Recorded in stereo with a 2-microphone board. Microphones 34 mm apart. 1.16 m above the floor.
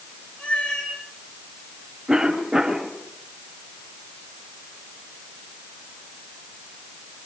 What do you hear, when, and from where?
0.4 s a cat meowing: 25° left (ahead or behind), 8 m
2.1 s a cough: 25° right (ahead or behind), 3 m